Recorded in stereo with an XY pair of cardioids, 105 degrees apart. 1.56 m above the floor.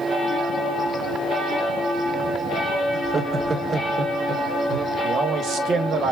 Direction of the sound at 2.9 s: 15° right.